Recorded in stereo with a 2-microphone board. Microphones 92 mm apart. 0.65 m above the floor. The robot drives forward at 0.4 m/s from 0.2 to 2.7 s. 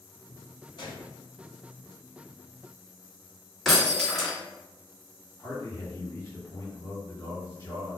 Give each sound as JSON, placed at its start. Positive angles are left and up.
{"t": 0.8, "sound": "a gunshot", "side_deg": 50, "distance_m": 1.1}
{"t": 3.6, "sound": "breaking glass", "side_deg": 0, "distance_m": 1.4}
{"t": 5.4, "sound": "a man speaking", "side_deg": 25, "distance_m": 1.9}